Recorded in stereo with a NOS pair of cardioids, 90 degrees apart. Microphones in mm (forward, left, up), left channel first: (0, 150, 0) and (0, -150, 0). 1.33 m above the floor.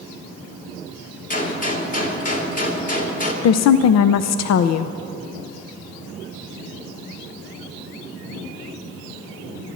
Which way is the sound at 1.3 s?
30° left.